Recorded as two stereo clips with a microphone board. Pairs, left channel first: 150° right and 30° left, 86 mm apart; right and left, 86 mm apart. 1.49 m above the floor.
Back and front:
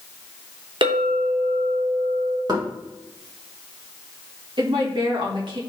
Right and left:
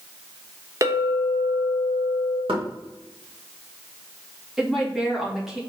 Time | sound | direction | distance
0.8 | a clink | 40° left | 1.1 m
2.5 | knocking | 70° left | 1.8 m
4.6 | a woman speaking | 5° left | 2 m